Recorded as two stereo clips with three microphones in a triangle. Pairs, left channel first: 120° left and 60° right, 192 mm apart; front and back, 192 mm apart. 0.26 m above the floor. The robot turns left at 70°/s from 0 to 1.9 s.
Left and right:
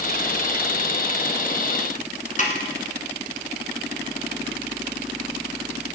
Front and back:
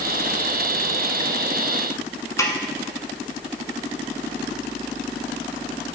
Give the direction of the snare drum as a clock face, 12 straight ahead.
10 o'clock.